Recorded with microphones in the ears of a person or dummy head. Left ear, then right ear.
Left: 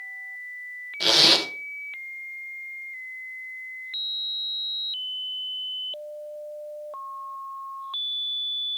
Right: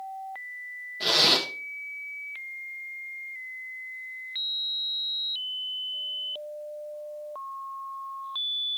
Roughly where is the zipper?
Centre.